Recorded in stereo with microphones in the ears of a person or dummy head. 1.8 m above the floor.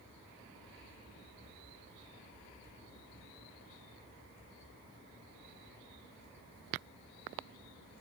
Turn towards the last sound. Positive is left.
No sound to turn to.